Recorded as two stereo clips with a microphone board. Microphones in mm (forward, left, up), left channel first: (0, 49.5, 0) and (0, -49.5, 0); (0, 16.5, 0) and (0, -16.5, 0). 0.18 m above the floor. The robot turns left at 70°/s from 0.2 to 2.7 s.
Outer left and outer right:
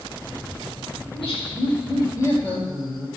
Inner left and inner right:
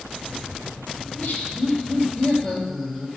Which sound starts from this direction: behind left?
Laughter, at 1.0 s.